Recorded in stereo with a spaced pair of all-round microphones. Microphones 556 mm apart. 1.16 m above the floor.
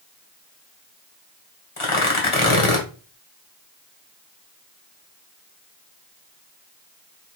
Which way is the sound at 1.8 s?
60° left (ahead or behind).